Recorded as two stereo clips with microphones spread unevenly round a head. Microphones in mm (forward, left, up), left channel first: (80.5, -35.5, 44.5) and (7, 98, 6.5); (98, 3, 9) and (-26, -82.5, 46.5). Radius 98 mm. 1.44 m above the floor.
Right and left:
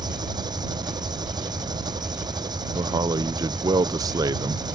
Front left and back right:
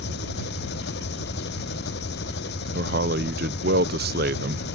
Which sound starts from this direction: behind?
A man speaking, at 2.8 s.